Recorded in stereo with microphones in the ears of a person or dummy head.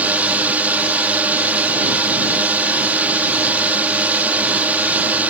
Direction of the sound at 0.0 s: 10° right (ahead or behind).